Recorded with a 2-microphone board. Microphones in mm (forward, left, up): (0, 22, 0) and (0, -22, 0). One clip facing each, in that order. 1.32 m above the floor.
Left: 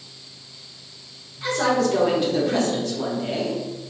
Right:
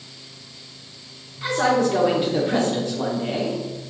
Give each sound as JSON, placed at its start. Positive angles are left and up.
{"t": 1.4, "sound": "a man speaking", "side_deg": -15, "distance_m": 1.0}